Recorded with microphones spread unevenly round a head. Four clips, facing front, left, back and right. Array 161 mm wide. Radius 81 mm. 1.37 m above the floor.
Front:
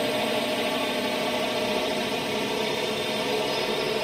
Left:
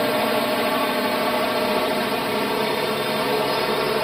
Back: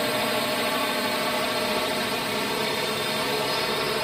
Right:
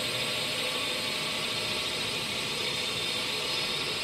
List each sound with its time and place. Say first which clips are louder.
0.0 s a drone: left 16 dB, even; 75° left